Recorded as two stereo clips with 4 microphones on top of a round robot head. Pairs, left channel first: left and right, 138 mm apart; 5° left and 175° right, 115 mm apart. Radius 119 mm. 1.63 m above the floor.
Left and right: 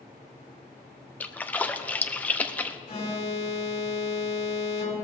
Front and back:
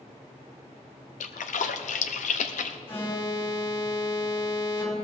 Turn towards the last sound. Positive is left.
turn(degrees=50)